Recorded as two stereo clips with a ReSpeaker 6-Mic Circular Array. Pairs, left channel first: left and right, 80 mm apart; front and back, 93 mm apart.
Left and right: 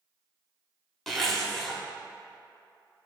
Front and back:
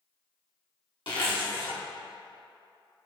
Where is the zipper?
5° left, 1.3 m.